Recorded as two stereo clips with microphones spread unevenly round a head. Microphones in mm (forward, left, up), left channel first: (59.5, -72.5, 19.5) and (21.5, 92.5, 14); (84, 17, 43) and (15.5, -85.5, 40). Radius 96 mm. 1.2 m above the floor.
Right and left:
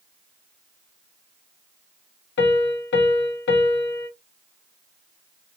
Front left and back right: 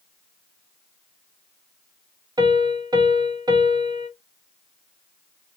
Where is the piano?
65° right, 1.4 m.